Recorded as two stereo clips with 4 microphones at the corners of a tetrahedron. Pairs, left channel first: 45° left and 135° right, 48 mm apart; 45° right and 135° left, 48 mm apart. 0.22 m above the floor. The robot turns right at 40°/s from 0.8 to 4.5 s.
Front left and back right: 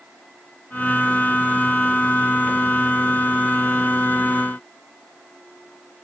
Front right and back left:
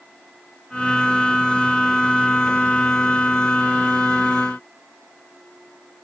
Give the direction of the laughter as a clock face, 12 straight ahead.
No laughter in this recording.